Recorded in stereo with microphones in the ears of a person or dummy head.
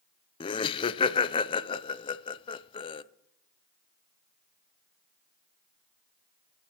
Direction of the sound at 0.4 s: 25° left (ahead or behind).